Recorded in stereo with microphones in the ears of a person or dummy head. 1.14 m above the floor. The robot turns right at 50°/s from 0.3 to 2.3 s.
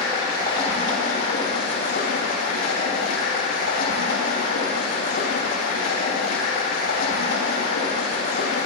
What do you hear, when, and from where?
0.0 s running water: 20° left, 3 m; by 8.7 s 120° left, 3 m